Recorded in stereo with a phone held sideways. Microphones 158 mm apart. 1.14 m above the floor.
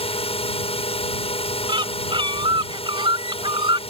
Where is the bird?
30° right (ahead or behind).